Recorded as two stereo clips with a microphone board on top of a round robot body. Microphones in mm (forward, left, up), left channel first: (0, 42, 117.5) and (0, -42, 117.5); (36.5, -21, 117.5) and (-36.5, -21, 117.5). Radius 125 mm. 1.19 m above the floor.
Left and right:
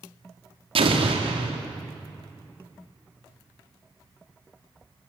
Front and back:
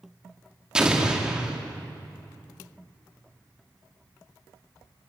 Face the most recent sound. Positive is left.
turn(degrees=-100)